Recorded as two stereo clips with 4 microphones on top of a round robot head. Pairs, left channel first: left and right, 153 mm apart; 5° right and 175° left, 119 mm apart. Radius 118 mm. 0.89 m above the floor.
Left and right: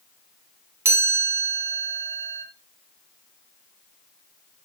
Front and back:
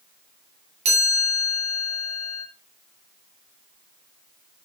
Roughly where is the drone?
No drone in this recording.